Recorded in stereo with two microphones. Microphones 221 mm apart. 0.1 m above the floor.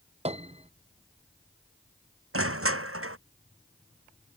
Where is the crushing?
80° right.